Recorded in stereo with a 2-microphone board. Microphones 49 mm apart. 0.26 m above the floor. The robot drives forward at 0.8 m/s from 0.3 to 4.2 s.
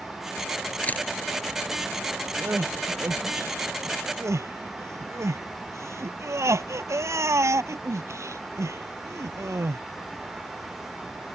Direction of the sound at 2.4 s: 55° right (ahead or behind).